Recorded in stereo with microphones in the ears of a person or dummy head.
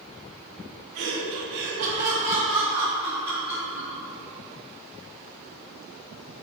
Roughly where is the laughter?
Right.